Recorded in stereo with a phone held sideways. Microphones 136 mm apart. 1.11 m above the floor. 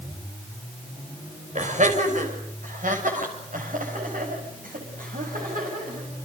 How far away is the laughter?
About 5.5 m.